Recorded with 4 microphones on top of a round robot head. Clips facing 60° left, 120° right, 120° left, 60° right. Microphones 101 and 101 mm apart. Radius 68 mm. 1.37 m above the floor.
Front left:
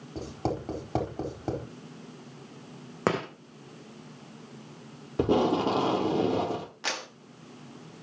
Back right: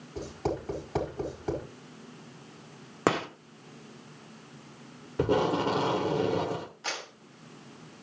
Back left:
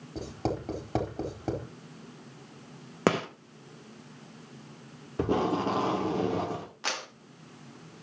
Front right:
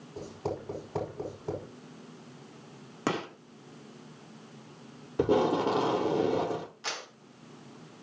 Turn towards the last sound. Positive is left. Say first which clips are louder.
# front left 3 dB, back left 3 dB
turn(degrees=80)